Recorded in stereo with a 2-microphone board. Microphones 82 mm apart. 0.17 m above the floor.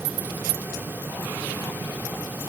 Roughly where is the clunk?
I don't hear a clunk.